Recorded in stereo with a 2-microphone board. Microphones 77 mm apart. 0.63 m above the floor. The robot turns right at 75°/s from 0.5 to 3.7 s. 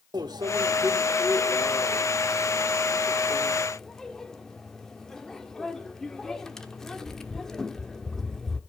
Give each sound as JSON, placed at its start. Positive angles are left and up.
{"t": 0.1, "sound": "a microwave", "side_deg": -60, "distance_m": 1.1}